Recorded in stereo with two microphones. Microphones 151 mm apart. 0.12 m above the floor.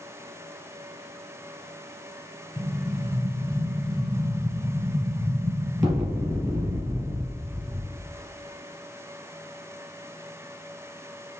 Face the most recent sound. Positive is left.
turn(degrees=-20)  # may be behind; listen again after turning